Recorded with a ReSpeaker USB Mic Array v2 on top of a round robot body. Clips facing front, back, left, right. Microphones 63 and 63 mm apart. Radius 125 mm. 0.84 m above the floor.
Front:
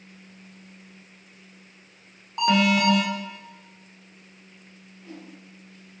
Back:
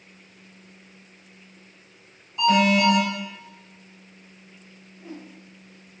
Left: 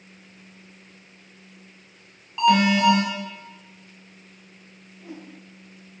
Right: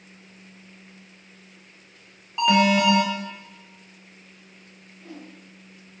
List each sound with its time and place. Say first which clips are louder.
2.4 s an alarm: back 2 dB, left 1 dB; 5° right, 1.0 m
5.0 s a whoosh: back 3 dB, left 1 dB; 150° left, 0.6 m